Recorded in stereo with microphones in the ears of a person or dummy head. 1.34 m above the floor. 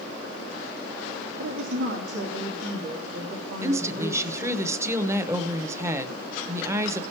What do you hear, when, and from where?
1.4 s a woman speaking: 60° right (ahead or behind), 2 m
3.6 s a woman speaking: 10° right (ahead or behind), 0.9 m